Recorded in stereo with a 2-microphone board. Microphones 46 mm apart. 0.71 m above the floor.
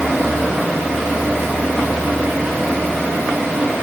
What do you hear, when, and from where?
Only background noise.